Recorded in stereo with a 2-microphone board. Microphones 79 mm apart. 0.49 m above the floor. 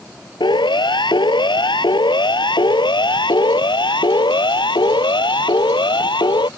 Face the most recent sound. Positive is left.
turn(degrees=75)  # may be behind; listen again after turning